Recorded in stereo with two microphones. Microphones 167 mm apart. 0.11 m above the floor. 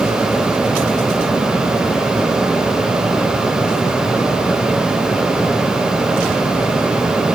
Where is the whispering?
No whispering in this recording.